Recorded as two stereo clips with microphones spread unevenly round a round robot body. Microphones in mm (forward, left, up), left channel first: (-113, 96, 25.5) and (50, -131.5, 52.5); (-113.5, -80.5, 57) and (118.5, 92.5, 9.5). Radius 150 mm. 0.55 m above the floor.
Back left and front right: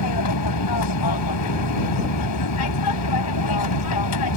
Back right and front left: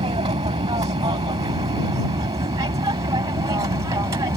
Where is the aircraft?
110° left; by 4.4 s 115° left.